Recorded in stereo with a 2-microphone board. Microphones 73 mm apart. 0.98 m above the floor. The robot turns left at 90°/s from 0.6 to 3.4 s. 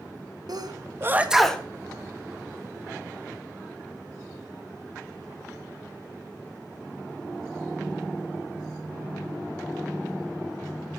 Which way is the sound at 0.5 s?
60° right (ahead or behind).